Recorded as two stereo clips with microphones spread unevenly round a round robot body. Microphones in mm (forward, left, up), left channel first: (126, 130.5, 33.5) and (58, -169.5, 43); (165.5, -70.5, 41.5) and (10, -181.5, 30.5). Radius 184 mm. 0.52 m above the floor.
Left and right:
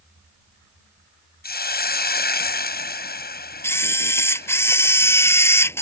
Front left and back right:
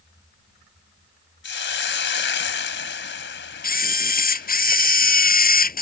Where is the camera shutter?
5° right.